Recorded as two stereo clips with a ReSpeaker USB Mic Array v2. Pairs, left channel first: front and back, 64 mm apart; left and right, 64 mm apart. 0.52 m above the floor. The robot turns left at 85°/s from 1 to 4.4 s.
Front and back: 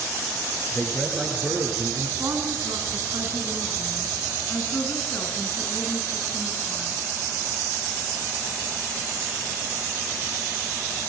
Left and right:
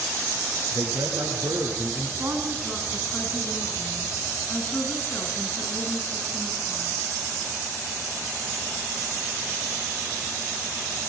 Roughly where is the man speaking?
Right.